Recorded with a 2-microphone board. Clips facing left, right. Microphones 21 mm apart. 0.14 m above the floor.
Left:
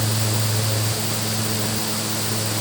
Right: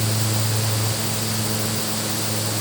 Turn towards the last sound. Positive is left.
No sound to turn to.